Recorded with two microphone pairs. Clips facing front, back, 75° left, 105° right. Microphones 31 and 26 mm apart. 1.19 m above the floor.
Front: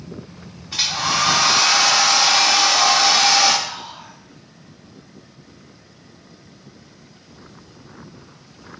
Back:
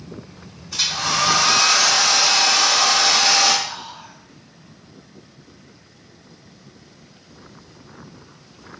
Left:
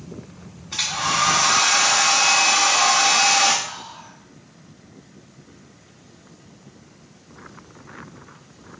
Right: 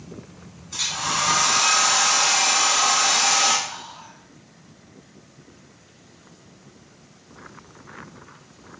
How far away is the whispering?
About 1.7 m.